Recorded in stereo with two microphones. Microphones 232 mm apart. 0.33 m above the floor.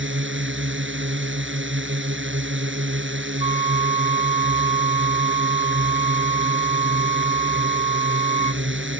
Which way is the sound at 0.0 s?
60° right (ahead or behind).